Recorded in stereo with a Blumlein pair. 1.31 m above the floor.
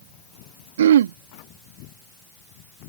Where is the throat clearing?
60° right.